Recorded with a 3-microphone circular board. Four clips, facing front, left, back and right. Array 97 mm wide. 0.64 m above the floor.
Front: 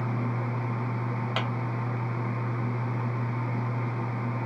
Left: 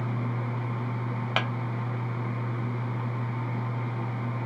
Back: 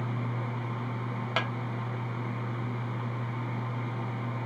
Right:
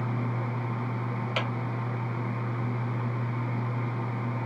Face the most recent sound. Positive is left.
turn(degrees=105)